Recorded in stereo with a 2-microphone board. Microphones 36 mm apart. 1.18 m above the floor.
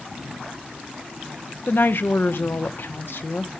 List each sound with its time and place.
1.7 s a woman speaking: 75° left (ahead or behind), 0.7 m